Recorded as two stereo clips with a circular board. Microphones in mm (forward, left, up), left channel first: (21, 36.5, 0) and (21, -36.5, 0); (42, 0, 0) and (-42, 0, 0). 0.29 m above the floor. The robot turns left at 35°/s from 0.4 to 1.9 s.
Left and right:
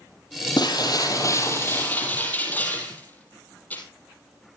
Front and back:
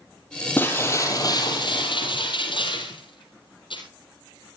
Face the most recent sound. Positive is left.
turn(degrees=25)